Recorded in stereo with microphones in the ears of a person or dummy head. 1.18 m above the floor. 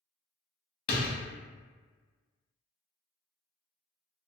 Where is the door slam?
60° left (ahead or behind), 0.9 m.